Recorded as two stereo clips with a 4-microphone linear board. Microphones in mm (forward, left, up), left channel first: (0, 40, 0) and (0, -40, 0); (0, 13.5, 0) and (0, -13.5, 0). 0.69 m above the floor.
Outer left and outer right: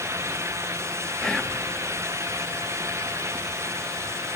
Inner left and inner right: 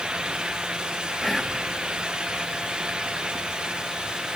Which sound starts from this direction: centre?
Whispering, at 1.2 s.